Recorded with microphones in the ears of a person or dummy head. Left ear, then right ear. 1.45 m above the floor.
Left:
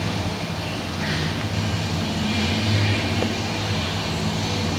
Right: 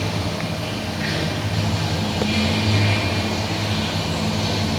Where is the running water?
15° right (ahead or behind), 2 m.